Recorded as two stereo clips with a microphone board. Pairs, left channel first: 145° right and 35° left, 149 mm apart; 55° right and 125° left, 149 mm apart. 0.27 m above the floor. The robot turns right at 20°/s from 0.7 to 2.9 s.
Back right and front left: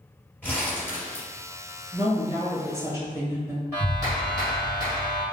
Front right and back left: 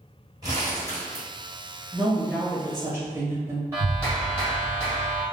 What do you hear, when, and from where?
0.4 s crumpling: 150° left, 1.7 m; by 1.2 s 160° left, 1.7 m
1.9 s a woman speaking: 60° left, 0.9 m; by 3.6 s 80° left, 0.9 m
3.7 s a clap: 75° left, 1.4 m